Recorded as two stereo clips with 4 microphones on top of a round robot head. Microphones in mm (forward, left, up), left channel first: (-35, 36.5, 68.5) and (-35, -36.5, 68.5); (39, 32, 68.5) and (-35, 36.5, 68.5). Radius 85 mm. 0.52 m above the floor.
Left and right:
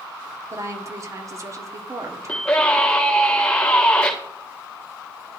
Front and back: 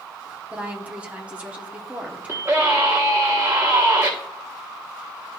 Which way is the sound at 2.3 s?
155° left.